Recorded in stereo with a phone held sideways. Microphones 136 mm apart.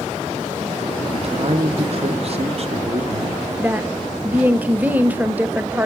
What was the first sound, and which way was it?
A man speaking, 50° right (ahead or behind).